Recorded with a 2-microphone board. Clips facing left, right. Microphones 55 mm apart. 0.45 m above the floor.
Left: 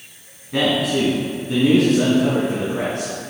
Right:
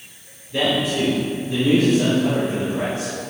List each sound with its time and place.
0.5 s a man speaking: 70° left (ahead or behind), 3.5 m; by 3.1 s 65° left (ahead or behind), 4.5 m